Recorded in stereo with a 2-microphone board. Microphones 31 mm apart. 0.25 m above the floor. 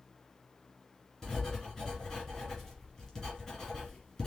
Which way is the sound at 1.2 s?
15° left (ahead or behind).